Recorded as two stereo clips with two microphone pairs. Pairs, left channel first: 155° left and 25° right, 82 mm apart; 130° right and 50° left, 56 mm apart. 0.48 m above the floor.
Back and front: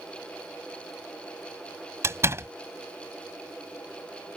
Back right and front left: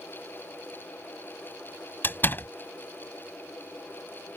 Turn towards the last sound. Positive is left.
turn(degrees=-80)